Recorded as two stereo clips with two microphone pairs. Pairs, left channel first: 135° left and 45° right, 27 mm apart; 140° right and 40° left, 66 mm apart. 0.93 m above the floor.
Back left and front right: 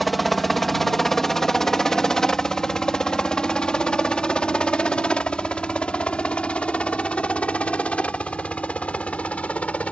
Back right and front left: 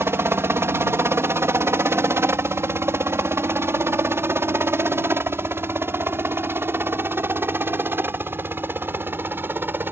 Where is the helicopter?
45° left; by 9.9 s 95° left.